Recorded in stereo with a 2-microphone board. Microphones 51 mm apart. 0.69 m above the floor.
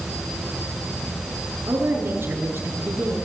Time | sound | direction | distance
1.7 | a woman speaking | 50° right (ahead or behind) | 9 m